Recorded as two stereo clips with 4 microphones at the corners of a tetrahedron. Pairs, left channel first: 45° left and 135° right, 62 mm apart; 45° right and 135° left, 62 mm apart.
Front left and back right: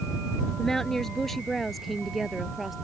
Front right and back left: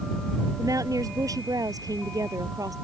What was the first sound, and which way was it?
A woman speaking, 130° left.